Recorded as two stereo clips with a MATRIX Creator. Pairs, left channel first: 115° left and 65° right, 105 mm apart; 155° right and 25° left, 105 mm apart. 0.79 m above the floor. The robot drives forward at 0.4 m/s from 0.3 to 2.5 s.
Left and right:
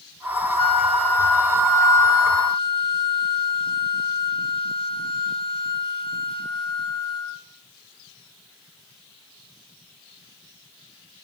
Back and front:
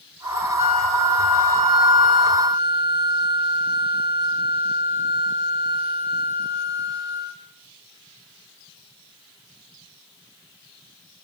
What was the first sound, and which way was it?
A flute, 30° left.